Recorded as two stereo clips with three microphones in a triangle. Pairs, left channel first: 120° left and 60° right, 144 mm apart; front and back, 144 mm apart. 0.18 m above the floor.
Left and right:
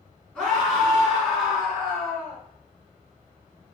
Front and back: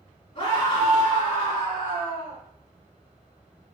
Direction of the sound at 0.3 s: 40° left.